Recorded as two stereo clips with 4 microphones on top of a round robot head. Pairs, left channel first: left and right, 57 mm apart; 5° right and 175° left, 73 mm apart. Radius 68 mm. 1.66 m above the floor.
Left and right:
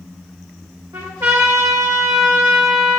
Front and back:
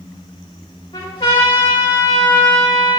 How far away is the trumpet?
About 3 m.